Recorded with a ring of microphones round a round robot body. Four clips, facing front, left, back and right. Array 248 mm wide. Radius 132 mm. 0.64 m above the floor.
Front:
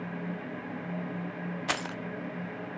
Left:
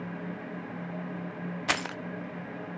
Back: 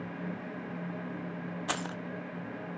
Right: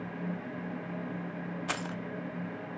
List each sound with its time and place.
1.7 s keys jangling: 70° left, 0.6 m